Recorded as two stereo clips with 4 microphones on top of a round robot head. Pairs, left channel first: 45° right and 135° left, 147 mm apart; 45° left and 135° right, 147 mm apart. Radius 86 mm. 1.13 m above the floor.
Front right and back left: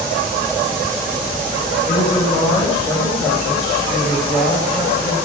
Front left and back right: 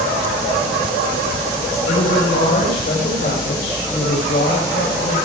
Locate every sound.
1.9 s a woman speaking: 10° left, 6.5 m